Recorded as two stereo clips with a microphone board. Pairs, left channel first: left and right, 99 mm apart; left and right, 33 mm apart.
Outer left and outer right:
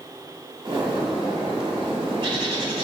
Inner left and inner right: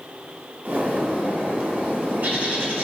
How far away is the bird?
About 1.1 m.